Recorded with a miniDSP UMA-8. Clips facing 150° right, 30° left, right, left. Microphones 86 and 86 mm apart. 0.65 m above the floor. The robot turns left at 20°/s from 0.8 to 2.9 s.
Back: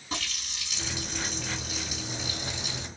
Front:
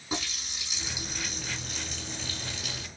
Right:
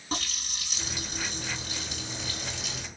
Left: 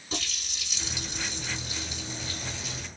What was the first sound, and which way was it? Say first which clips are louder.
A running tap: front 2 dB, right 2 dB; 45° right.